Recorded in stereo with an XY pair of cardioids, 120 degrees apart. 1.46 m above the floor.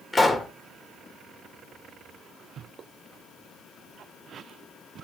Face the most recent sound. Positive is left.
turn(degrees=20)